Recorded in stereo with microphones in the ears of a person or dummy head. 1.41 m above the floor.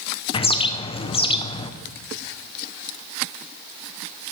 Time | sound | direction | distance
0.3 | a bird | 30° left (ahead or behind) | 0.7 m